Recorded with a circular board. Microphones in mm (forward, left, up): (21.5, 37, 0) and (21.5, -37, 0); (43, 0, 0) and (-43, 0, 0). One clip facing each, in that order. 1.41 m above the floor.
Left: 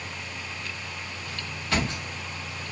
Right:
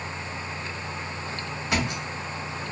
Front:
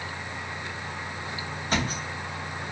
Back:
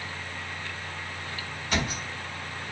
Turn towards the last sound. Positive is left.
turn(degrees=-25)